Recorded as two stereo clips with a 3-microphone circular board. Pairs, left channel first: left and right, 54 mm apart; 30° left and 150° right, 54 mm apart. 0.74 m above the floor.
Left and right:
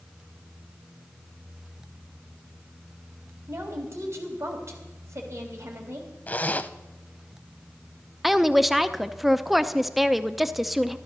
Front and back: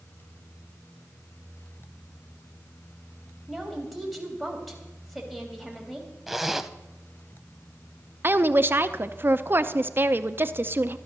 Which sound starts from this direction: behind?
A woman speaking, at 8.2 s.